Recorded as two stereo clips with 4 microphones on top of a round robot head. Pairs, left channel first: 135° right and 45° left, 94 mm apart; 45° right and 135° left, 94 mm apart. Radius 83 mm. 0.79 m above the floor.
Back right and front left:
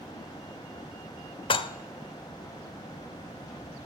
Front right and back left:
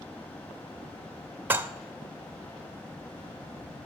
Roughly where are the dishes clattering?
Behind right.